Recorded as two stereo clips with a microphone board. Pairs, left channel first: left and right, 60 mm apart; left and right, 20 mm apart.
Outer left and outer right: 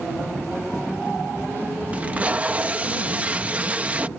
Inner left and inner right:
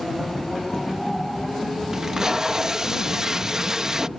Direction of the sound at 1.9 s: 25° right (ahead or behind).